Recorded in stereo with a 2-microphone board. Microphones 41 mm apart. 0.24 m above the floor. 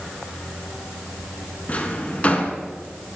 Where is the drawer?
40° left (ahead or behind), 1.2 m.